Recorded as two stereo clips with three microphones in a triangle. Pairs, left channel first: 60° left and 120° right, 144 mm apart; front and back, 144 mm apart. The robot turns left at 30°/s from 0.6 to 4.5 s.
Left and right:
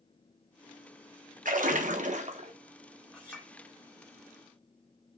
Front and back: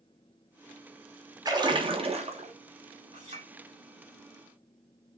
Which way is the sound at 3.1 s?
145° left.